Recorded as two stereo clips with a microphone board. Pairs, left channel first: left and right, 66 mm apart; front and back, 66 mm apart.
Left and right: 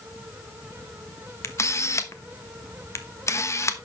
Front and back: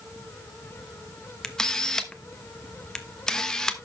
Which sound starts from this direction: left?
A camera shutter, at 1.4 s.